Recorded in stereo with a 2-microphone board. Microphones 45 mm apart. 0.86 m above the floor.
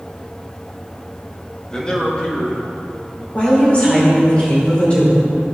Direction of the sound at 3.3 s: 40° left (ahead or behind).